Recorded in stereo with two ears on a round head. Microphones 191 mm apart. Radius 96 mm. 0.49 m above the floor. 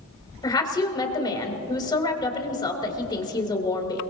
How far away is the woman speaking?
About 3 m.